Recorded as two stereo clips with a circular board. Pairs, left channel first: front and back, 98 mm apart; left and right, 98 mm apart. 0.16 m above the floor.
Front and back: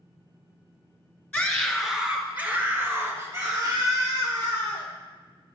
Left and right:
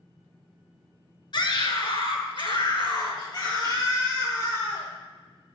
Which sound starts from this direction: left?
A scream, at 1.3 s.